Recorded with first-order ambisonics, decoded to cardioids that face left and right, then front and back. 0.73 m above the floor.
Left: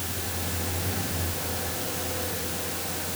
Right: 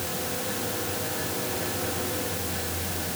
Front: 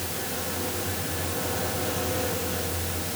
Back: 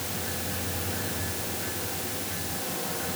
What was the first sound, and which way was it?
Only background noise.